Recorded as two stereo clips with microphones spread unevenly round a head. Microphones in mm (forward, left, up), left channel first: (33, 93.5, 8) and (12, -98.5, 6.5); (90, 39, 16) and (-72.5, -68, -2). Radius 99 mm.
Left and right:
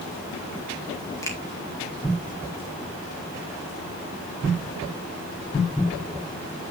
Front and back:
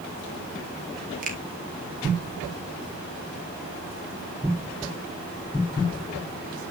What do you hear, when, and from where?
1.2 s a finger snap: 160° left, 2 m